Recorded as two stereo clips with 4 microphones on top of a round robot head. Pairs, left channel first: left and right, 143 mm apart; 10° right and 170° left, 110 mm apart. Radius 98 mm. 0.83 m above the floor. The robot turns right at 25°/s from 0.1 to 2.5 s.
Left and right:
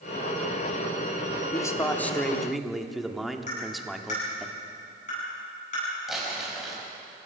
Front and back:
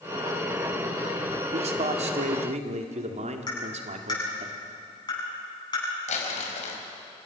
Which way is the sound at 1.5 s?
155° left.